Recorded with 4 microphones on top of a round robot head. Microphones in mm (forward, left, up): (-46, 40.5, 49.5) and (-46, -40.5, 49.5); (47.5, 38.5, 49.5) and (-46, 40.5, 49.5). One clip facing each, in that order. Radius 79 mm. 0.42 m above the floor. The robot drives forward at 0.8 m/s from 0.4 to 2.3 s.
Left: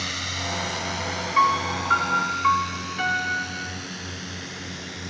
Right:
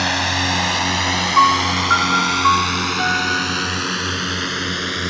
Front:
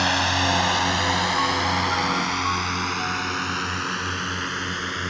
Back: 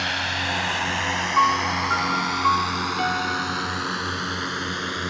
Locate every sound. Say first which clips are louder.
0.0 s a drone: right 12 dB, front 5 dB; 60° right; by 5.1 s 100° right
1.4 s a piano: right 6 dB, back 3 dB; 150° right; by 3.9 s 160° right